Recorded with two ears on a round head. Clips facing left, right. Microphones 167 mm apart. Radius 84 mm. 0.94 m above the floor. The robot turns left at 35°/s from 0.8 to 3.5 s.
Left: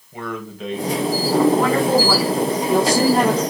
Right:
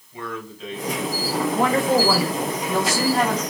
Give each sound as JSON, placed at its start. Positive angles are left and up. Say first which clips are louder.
{"t": 0.1, "sound": "a man speaking", "louder": "left 4 dB", "side_deg": 50, "distance_m": 4.0}
{"t": 1.5, "sound": "a woman speaking", "louder": "left 2 dB", "azimuth_deg": -165, "distance_m": 4.0}